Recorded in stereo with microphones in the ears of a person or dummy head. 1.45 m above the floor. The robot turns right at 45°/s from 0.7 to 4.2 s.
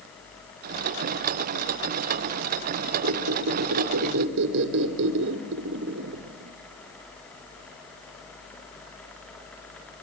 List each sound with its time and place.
3.0 s a squeak: 120° right, 2.5 m; by 6.5 s 70° right, 2.5 m